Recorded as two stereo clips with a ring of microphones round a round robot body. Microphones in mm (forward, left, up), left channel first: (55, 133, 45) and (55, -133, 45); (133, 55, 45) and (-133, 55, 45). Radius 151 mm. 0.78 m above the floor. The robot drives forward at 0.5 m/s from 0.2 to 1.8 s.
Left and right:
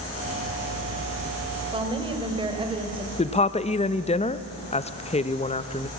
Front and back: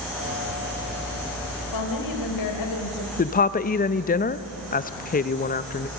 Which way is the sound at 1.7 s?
15° right.